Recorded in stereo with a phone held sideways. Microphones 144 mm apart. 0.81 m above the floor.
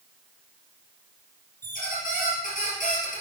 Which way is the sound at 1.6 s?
80° left.